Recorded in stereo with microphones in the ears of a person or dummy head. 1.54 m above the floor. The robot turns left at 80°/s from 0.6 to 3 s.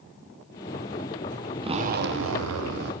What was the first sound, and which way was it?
A zipper, 30° right.